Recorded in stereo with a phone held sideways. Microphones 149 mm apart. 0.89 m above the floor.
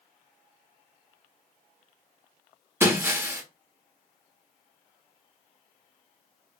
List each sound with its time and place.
2.8 s breaking glass: 15° right (ahead or behind), 0.5 m